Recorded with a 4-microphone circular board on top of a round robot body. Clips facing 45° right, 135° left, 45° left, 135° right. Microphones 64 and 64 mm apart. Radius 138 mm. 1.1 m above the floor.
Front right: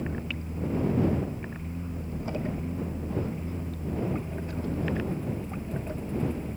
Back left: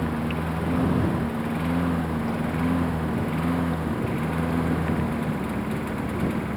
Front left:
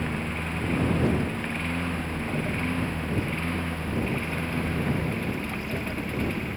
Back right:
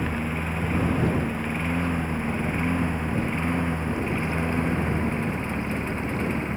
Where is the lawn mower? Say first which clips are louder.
Back left 8 dB, back right 2 dB; 145° left; by 6.6 s 160° left.